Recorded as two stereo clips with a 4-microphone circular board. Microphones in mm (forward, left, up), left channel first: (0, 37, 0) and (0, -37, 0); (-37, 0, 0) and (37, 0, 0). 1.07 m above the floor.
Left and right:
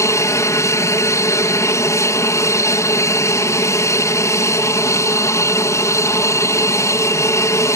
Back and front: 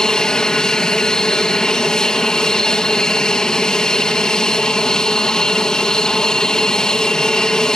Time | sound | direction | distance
0.0 | an aircraft | 105° left | ?